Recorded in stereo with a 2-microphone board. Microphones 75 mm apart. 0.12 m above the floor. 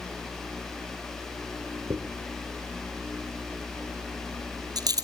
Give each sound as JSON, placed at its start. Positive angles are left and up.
{"t": 1.9, "sound": "a dropped coin", "side_deg": -65, "distance_m": 1.5}